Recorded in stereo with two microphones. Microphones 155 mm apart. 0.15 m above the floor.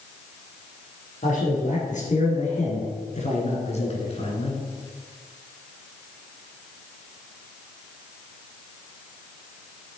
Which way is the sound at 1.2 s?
55° left (ahead or behind).